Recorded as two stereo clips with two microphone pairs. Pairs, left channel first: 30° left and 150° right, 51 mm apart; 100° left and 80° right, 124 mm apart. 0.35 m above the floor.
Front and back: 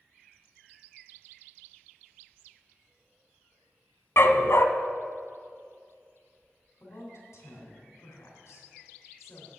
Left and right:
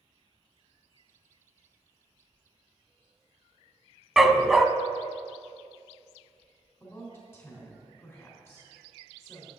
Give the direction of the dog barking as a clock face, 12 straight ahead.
12 o'clock.